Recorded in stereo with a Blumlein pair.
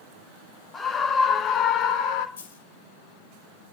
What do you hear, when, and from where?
0.7 s a scream: 20° left, 1.7 m; by 2.3 s 45° left, 1.8 m
2.4 s a dropped coin: 65° left, 2.5 m